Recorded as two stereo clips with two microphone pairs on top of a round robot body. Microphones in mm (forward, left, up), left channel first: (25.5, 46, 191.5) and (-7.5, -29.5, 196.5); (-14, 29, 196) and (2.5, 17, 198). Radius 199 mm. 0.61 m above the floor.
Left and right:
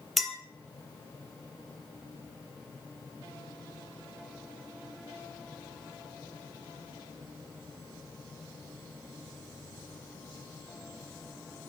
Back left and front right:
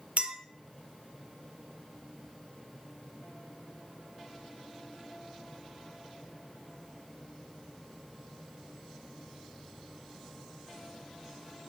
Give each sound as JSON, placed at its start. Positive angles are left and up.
{"t": 0.2, "sound": "a clink", "azimuth_deg": -20, "distance_m": 0.5}